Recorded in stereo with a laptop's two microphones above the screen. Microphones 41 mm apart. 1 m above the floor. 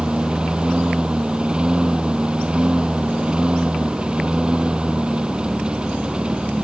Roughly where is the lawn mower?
Right.